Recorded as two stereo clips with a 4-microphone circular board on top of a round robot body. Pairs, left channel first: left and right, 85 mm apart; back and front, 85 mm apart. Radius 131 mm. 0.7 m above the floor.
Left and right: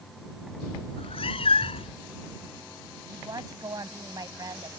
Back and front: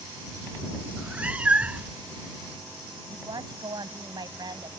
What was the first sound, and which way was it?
A cat meowing, 75° left.